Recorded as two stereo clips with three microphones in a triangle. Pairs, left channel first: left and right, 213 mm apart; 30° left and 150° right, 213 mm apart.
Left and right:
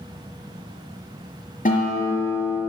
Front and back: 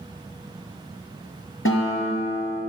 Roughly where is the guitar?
Ahead left.